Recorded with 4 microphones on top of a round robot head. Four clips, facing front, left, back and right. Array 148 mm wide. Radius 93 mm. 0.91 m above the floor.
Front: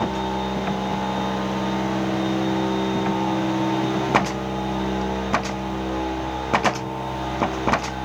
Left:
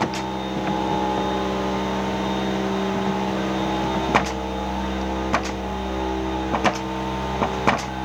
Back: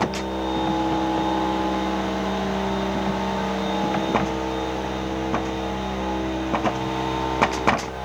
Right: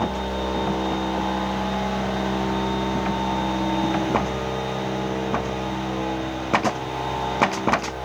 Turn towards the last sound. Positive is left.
No sound to turn to.